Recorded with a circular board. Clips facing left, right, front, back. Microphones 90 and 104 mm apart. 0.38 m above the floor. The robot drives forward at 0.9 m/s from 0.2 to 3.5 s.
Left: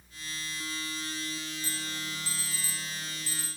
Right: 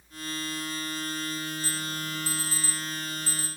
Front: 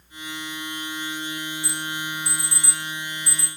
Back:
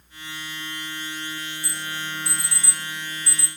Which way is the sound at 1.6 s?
150° left.